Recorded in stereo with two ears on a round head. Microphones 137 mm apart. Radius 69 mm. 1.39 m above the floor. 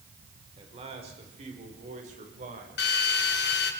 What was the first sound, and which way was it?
A man speaking, 35° right (ahead or behind).